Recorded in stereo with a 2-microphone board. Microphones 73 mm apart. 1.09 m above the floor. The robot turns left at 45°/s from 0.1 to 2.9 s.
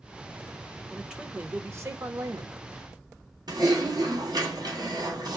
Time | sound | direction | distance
0.9 | a man speaking | straight ahead | 1.1 m
3.5 | typing on a keyboard | 75° right (ahead or behind) | 2.5 m